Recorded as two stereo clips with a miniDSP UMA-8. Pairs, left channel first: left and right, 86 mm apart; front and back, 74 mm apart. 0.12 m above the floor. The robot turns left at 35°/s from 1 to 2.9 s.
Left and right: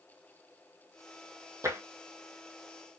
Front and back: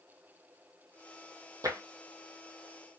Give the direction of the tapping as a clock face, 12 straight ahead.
5 o'clock.